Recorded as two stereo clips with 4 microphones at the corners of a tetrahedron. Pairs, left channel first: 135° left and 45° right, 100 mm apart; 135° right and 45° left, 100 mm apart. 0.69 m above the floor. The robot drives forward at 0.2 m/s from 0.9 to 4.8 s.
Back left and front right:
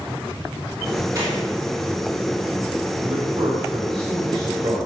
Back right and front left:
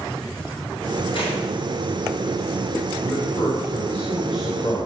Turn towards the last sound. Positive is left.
turn(degrees=-90)